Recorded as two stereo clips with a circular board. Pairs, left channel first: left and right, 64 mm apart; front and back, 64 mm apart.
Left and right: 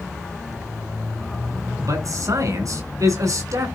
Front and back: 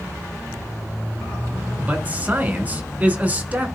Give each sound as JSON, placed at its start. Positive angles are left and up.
{"t": 1.8, "sound": "a man speaking", "azimuth_deg": -110, "distance_m": 3.5}